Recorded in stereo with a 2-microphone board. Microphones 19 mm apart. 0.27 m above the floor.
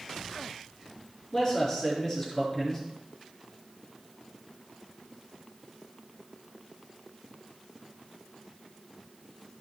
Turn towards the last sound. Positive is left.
turn(degrees=20)  # may be behind; listen again after turning